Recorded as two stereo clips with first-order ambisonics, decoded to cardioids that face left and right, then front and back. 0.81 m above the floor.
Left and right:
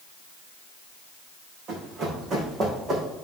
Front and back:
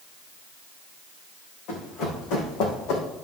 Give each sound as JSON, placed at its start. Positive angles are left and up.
{"t": 1.7, "sound": "running footsteps", "azimuth_deg": -30, "distance_m": 3.5}